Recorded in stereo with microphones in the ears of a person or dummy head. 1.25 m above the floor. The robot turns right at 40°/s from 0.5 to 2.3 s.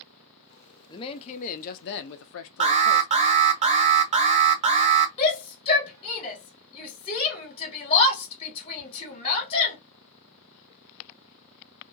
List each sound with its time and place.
0.9 s a man speaking: 25° left, 0.6 m; by 3.1 s 80° left, 0.6 m
2.6 s an alarm: 35° right (ahead or behind), 0.5 m
5.2 s a shout: 30° left (ahead or behind), 1.4 m